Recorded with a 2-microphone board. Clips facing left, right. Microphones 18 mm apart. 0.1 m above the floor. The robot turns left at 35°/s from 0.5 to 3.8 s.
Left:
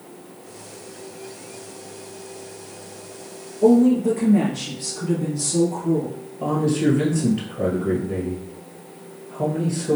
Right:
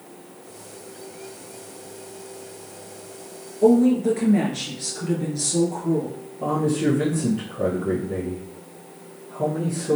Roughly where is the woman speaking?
Right.